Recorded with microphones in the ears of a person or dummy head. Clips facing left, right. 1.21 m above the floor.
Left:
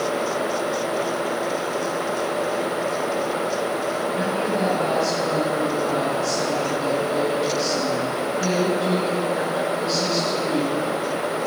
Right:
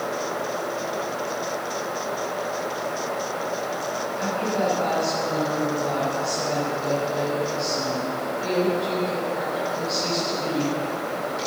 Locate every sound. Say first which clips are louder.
4.1 s a woman speaking: even; 40° left (ahead or behind), 7.5 m